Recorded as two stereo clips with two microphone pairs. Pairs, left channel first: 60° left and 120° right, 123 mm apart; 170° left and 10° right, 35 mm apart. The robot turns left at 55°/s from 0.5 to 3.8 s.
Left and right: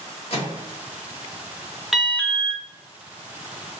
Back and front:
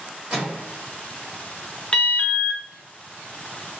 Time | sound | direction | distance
0.3 | a microwave | 40° left | 1.6 m
1.9 | an alarm | 150° left | 0.6 m